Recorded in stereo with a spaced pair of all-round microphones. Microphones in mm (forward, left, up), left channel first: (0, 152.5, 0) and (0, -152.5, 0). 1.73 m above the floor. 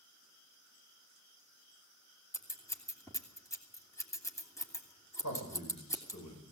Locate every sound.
2.3 s scissors: 10° left (ahead or behind), 3 m
5.2 s a man speaking: 65° left (ahead or behind), 9 m